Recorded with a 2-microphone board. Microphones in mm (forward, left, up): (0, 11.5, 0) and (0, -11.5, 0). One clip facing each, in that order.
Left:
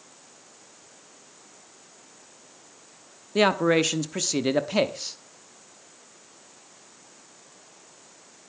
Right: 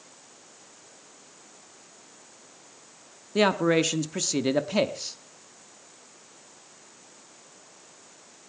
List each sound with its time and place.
3.4 s a man speaking: 5° left (ahead or behind), 0.8 m